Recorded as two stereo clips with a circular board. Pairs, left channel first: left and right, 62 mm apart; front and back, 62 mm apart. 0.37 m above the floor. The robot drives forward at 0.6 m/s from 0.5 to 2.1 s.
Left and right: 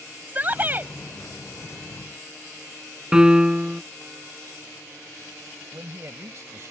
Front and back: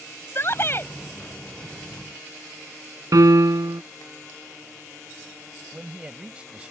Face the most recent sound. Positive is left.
turn(degrees=-115)